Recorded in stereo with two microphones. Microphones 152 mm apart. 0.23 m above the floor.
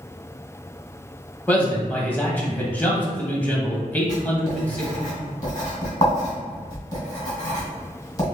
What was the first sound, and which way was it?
A man speaking, 10° left (ahead or behind).